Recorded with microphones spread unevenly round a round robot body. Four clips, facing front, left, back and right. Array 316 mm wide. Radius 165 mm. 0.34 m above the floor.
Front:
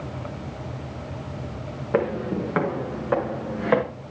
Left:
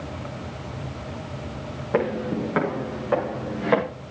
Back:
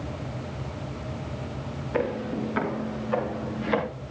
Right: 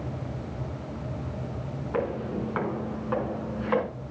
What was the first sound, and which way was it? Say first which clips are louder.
Footsteps: left 6 dB, front 4 dB; 40° left.